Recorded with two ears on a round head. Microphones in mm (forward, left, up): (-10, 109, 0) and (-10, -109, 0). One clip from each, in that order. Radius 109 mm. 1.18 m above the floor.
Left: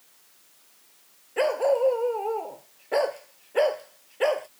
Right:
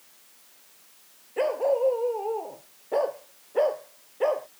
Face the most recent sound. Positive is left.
turn(degrees=80)